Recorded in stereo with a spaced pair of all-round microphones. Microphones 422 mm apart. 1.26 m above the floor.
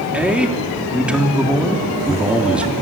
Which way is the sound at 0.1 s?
5° right (ahead or behind).